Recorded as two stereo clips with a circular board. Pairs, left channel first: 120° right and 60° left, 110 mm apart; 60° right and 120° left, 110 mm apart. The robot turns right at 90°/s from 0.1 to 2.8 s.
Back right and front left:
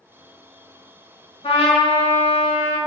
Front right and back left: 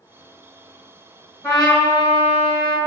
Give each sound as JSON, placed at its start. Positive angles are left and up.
{"t": 1.4, "sound": "a trumpet", "azimuth_deg": -125, "distance_m": 0.9}